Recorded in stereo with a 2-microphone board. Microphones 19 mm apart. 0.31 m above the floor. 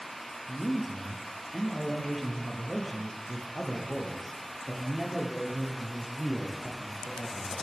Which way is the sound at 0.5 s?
5° right (ahead or behind).